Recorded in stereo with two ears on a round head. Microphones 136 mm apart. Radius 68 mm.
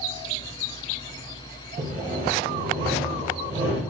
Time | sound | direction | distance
1.8 | sawing | 55° right (ahead or behind) | 1.0 m